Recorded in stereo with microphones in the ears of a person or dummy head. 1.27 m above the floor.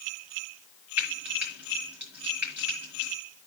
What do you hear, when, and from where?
1.0 s frying: 10° right (ahead or behind), 5 m